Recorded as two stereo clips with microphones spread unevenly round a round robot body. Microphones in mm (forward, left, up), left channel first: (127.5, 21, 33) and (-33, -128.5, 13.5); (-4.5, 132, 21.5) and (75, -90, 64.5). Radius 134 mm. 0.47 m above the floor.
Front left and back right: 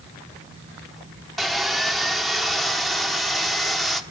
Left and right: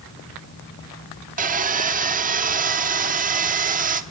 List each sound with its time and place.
1.4 s sawing: 60° right, 1.2 m